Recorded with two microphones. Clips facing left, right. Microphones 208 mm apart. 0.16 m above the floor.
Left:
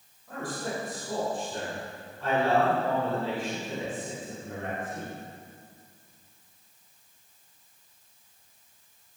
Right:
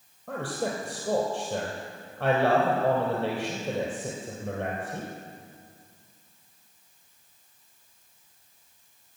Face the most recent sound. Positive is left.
turn(degrees=-65)  # may be behind; listen again after turning